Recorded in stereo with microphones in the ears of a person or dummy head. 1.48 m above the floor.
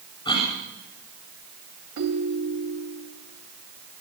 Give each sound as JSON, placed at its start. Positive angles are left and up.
{"t": 0.2, "sound": "a cough", "side_deg": 25, "distance_m": 8.0}
{"t": 2.0, "sound": "a ringtone", "side_deg": -70, "distance_m": 3.0}